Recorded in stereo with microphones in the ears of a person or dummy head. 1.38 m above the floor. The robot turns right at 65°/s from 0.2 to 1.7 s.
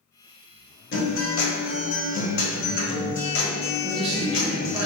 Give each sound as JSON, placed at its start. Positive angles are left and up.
{"t": 0.9, "sound": "a guitar", "azimuth_deg": 60, "distance_m": 1.1}
{"t": 3.8, "sound": "a man speaking", "side_deg": -25, "distance_m": 0.9}